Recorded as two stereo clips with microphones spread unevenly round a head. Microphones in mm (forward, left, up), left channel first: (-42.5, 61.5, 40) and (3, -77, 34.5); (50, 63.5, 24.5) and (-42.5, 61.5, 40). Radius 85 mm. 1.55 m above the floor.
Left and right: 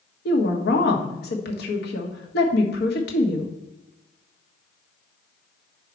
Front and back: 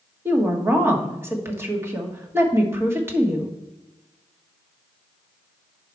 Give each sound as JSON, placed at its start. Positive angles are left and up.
{"t": 0.2, "sound": "a woman speaking", "azimuth_deg": 120, "distance_m": 1.6}